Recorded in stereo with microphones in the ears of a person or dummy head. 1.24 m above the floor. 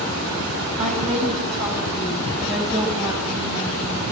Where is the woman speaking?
40° right (ahead or behind), 6.5 m; by 4.0 s 10° right (ahead or behind), 6 m.